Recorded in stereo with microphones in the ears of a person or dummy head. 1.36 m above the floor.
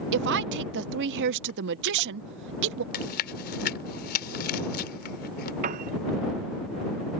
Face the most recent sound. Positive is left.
turn(degrees=-50)  # may be behind; listen again after turning